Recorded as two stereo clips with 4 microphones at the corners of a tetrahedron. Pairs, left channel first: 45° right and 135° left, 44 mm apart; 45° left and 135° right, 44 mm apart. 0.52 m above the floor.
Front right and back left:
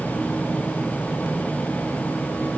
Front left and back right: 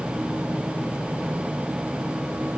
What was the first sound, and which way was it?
Only background noise.